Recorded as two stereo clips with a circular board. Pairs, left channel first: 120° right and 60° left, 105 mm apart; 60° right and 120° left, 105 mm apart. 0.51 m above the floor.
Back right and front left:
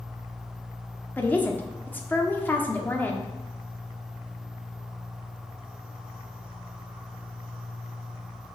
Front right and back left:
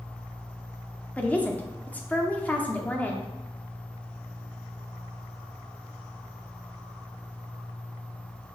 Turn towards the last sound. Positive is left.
turn(degrees=-100)